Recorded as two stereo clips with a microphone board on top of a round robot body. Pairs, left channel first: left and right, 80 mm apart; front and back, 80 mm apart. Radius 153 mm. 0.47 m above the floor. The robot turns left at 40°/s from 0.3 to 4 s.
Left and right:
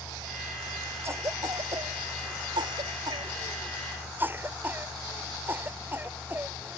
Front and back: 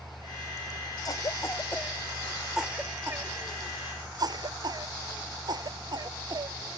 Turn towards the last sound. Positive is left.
turn(degrees=-155)